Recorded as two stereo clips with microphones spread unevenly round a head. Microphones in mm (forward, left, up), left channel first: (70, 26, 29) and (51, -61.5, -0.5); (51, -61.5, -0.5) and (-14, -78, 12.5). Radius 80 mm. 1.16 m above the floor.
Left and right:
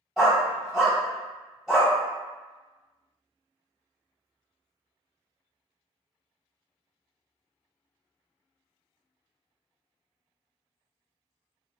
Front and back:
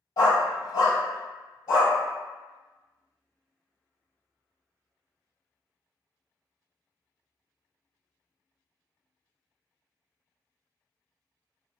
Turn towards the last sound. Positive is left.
turn(degrees=0)